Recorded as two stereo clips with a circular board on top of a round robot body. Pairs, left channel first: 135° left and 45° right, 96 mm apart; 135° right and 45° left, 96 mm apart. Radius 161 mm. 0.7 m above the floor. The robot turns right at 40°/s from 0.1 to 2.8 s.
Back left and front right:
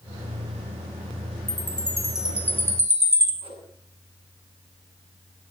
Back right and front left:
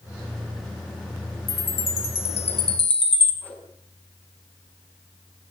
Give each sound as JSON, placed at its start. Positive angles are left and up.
{"t": 1.5, "sound": "a chime", "azimuth_deg": -160, "distance_m": 5.5}
{"t": 3.4, "sound": "a whoosh", "azimuth_deg": -60, "distance_m": 7.5}